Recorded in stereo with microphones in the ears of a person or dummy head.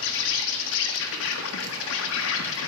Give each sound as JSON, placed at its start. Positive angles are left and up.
{"t": 0.0, "sound": "an insect", "side_deg": 70, "distance_m": 1.4}